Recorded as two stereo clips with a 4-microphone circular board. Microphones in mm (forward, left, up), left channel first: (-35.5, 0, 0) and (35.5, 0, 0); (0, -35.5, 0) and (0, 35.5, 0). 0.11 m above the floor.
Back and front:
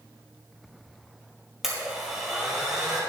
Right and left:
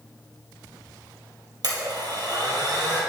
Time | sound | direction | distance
1.6 | a blender | 85° left | 2.5 m